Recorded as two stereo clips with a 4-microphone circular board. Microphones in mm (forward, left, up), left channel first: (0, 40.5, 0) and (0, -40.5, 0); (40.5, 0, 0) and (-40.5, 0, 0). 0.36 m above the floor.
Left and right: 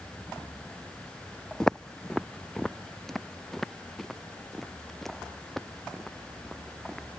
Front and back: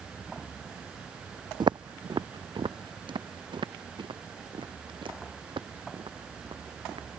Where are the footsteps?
175° left.